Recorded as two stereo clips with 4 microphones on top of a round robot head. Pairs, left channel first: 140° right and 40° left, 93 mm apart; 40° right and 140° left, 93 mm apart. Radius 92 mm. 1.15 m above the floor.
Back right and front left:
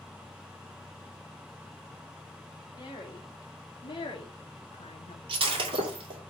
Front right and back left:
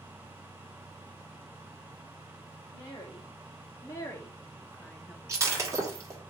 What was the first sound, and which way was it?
A woman speaking, 95° right.